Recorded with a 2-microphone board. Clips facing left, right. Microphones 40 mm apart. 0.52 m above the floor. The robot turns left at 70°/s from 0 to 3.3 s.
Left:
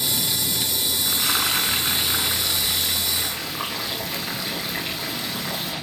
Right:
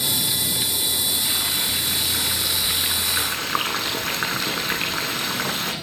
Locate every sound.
1.0 s frying: 110° left, 6.5 m; by 5.7 s 50° right, 6.5 m